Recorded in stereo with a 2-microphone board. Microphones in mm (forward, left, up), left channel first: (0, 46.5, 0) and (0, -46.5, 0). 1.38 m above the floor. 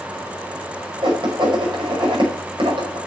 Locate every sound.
1.0 s writing: 65° right (ahead or behind), 5.5 m